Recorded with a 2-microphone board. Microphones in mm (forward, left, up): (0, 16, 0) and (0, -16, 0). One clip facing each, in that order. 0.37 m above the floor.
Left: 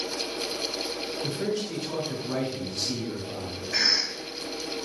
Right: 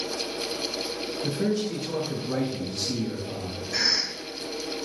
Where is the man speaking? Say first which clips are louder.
Right 4 dB; 15° left (ahead or behind), 3 m.